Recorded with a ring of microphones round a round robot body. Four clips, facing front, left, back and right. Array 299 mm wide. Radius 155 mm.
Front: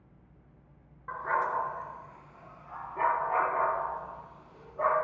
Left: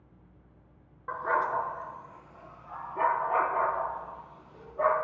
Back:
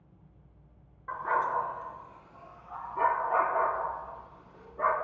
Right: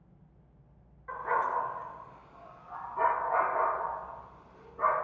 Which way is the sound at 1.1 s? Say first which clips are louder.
Left 2 dB, back 1 dB; 90° left.